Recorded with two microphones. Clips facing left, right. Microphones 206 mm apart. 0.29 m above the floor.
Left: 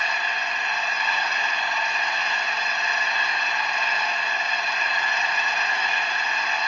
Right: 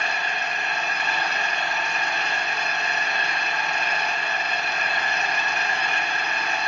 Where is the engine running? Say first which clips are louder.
Right 2 dB; 50° right (ahead or behind), 0.7 m.